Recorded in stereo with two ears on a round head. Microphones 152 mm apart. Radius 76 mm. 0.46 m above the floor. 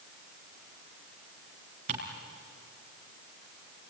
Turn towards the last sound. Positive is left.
turn(degrees=-40)  # may be behind; listen again after turning